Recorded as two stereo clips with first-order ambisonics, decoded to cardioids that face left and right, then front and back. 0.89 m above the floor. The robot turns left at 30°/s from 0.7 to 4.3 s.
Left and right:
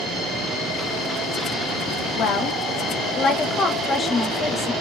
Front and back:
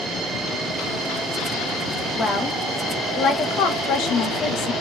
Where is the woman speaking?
70° left, 1.1 m; by 4.7 s 5° left, 1.1 m.